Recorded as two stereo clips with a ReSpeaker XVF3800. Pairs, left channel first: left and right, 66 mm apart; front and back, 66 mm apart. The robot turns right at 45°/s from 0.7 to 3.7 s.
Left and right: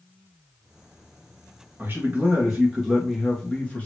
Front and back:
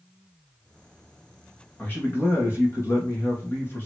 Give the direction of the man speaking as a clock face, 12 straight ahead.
2 o'clock.